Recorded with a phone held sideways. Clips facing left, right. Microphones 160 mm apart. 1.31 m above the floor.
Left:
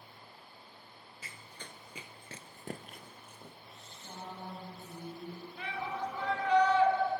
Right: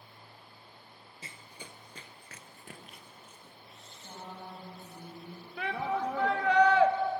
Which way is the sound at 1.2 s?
30° right (ahead or behind).